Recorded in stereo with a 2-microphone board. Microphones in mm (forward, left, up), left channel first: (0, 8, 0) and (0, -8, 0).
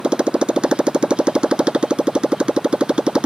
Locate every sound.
0.0 s a motorcycle: 90° right